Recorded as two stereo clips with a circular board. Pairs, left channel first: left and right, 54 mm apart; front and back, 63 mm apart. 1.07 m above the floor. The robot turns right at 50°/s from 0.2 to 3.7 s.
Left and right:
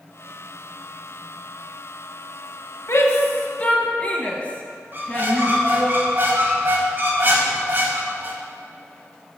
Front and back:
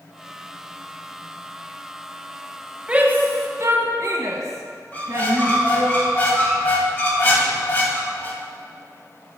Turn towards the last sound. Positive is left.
turn(degrees=-55)